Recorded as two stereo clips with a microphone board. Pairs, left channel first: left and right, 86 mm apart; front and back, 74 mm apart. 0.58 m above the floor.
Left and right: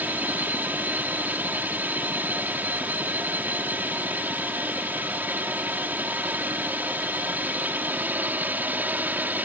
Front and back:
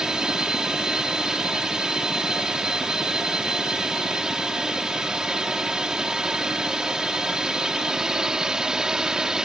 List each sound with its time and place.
0.0 s a drone: 115° right